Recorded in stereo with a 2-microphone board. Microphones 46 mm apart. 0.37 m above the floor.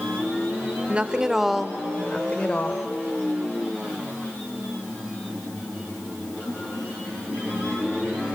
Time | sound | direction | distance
0.9 | a woman speaking | 25° right (ahead or behind) | 1.0 m